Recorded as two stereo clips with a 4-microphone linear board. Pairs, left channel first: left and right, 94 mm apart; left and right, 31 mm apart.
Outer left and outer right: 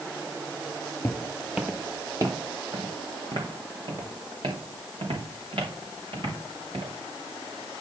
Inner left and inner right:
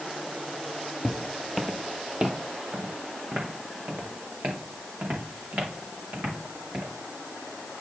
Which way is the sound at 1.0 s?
15° left (ahead or behind).